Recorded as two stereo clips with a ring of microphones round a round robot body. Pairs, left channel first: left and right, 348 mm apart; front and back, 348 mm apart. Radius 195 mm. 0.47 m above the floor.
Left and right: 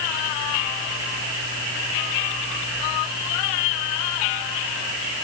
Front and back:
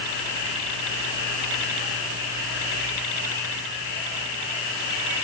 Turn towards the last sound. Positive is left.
No sound to turn to.